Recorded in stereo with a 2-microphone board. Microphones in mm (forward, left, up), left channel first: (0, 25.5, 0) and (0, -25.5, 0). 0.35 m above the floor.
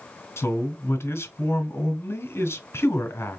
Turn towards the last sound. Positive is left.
turn(degrees=60)  # may be behind; listen again after turning